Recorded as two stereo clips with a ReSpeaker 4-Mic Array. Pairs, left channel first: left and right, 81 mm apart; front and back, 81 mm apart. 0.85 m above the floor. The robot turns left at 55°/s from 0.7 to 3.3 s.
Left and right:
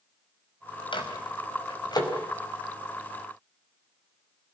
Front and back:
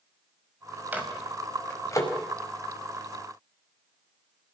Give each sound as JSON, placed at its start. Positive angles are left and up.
{"t": 0.9, "sound": "a microwave", "azimuth_deg": 110, "distance_m": 5.0}